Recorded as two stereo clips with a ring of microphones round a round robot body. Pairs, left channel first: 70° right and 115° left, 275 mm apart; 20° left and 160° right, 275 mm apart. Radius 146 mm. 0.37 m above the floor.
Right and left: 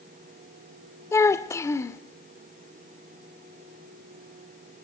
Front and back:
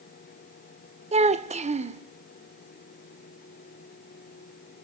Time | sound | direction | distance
1.1 | a child speaking | 135° right | 0.8 m